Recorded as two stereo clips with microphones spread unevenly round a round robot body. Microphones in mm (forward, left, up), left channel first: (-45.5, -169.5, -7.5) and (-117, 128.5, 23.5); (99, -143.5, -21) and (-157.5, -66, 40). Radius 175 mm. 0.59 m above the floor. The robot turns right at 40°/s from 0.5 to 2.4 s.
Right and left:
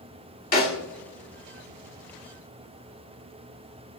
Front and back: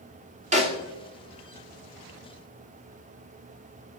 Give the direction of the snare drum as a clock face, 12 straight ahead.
4 o'clock.